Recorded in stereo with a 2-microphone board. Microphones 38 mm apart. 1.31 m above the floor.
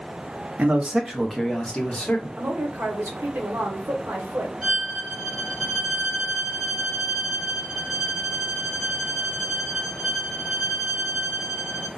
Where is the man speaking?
40° right (ahead or behind), 0.7 m; by 2.3 s 35° left (ahead or behind), 1.0 m.